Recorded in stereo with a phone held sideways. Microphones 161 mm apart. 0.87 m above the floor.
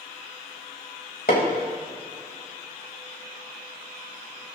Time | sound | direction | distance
1.3 | hammering | 75° left (ahead or behind) | 3.5 m